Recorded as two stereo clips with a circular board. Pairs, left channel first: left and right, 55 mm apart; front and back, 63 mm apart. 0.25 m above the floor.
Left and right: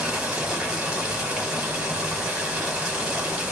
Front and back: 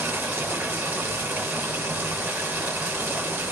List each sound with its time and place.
0.0 s running water: 155° right, 1.3 m